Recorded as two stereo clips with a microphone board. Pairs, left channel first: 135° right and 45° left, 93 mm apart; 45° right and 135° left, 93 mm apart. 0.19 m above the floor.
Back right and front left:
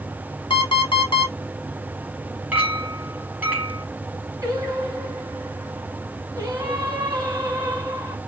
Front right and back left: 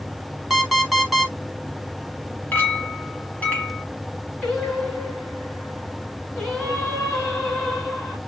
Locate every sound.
0.5 s an alarm clock: 135° right, 1.0 m
2.5 s a clink: straight ahead, 1.0 m
4.4 s singing: 30° left, 1.9 m